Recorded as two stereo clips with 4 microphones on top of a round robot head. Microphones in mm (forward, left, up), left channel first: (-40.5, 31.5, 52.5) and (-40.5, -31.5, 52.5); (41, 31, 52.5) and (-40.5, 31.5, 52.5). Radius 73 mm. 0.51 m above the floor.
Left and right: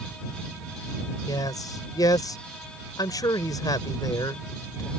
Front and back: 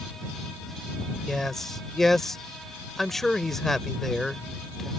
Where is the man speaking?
85° left.